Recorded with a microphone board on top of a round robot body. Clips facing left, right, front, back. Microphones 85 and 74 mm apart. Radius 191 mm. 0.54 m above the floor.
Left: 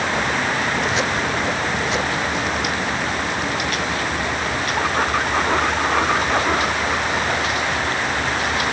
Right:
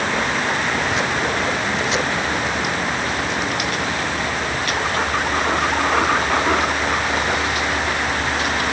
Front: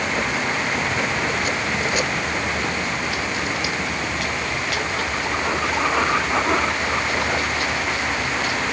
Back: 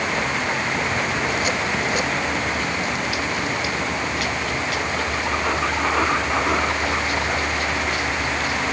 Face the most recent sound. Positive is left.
No sound to turn to.